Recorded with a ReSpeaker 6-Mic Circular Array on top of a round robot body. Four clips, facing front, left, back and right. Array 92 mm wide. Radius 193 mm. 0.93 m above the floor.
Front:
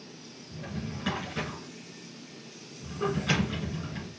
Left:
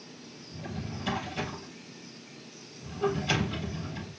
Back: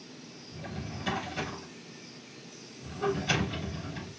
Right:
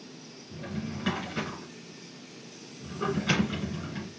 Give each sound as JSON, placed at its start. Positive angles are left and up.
{"t": 0.5, "sound": "a drawer", "azimuth_deg": -65, "distance_m": 2.5}